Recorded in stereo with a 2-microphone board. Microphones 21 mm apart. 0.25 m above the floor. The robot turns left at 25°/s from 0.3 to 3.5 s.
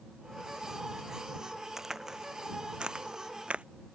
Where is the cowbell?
I don't hear a cowbell.